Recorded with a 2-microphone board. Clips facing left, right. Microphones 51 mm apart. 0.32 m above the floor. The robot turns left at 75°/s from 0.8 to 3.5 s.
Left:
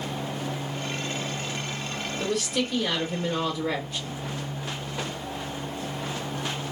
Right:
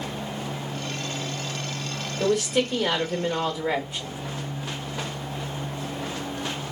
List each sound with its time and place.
2.2 s a woman speaking: 15° right (ahead or behind), 1.0 m